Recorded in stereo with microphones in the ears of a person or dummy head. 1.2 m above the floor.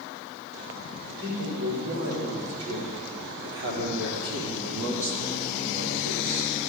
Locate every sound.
1.1 s a man speaking: 80° right, 5 m; by 6.5 s 60° right (ahead or behind), 2 m